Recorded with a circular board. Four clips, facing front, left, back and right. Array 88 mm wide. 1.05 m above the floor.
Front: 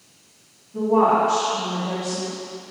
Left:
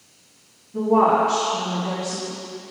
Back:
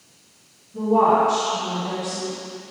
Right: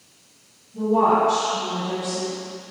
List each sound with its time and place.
0.7 s a woman speaking: 65° left, 2.5 m